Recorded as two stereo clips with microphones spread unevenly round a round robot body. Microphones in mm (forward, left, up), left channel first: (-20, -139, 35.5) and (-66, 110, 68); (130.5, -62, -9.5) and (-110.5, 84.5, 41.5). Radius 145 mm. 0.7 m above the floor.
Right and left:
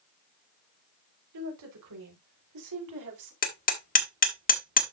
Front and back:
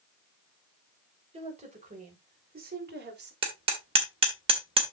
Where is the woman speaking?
75° left, 4 m; by 3.3 s 90° left, 3 m.